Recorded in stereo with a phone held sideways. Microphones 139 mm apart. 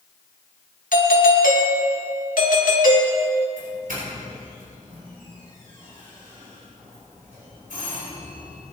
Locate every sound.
0.9 s a doorbell: 75° left (ahead or behind), 2.5 m
3.6 s a doorbell: 80° right, 7 m